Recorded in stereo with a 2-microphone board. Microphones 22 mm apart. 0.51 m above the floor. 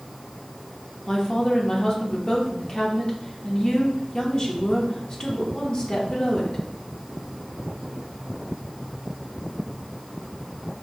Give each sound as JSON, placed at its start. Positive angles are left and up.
{"t": 1.1, "sound": "a woman speaking", "side_deg": 35, "distance_m": 1.0}